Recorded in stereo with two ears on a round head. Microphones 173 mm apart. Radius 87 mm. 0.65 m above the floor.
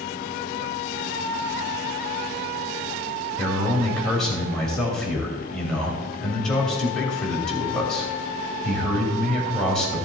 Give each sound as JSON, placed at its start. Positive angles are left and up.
{"t": 3.4, "sound": "a man speaking", "side_deg": 5, "distance_m": 3.0}